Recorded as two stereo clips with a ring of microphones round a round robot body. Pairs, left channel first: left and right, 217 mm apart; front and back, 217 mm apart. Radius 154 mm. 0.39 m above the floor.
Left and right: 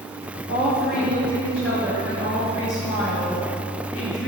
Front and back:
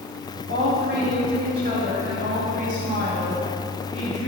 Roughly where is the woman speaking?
Behind left.